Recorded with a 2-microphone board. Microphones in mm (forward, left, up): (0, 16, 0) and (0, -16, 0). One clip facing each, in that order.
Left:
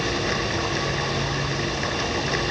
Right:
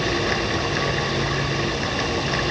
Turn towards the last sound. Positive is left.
No sound to turn to.